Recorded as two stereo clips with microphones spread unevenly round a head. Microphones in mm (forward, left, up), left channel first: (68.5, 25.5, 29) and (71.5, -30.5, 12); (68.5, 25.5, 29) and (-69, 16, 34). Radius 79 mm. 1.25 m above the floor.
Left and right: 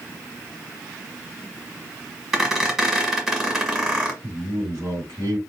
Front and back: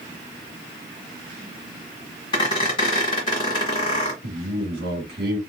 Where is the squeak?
20° left, 1.2 m.